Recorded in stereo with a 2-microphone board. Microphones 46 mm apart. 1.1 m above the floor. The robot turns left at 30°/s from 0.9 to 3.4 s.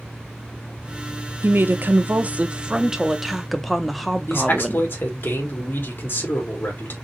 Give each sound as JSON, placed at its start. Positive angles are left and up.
{"t": 1.4, "sound": "a woman speaking", "azimuth_deg": -120, "distance_m": 0.7}
{"t": 4.3, "sound": "a man speaking", "side_deg": 50, "distance_m": 1.6}